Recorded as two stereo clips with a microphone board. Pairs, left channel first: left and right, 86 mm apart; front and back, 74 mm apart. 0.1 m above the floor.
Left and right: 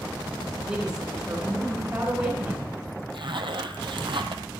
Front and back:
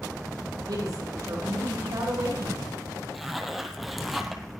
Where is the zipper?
90° right, 1.3 m.